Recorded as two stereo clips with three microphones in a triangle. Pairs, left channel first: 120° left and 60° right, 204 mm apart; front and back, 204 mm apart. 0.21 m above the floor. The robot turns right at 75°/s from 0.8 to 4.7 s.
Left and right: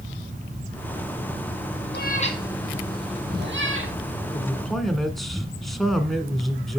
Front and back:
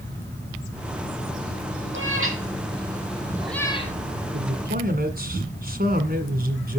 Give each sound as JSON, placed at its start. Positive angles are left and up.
{"t": 1.9, "sound": "a cat meowing", "azimuth_deg": 155, "distance_m": 1.6}
{"t": 4.3, "sound": "a man speaking", "azimuth_deg": 180, "distance_m": 1.6}